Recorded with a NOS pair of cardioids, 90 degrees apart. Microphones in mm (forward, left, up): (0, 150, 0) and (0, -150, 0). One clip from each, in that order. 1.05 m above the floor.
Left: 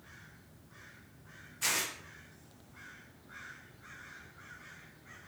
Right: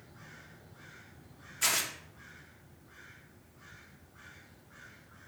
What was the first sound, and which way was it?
Tearing paper, 30° right.